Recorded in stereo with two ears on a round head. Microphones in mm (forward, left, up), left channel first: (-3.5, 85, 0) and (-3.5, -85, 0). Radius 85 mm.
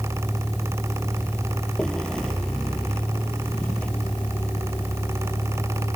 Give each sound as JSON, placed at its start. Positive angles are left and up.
{"t": 0.0, "sound": "a vehicle", "side_deg": 0}